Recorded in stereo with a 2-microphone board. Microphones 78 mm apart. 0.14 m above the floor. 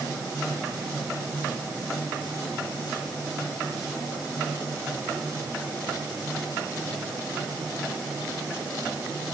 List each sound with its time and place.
Only background noise.